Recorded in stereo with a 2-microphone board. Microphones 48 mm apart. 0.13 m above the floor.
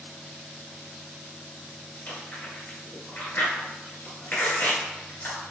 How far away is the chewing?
About 2 m.